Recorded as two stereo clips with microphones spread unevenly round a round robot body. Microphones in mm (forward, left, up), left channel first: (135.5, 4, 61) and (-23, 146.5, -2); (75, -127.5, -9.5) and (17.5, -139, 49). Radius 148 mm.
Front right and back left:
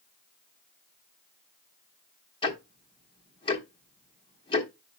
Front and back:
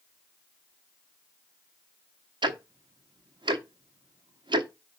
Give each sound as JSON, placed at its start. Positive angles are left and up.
{"t": 2.4, "sound": "ticking", "azimuth_deg": -120, "distance_m": 0.8}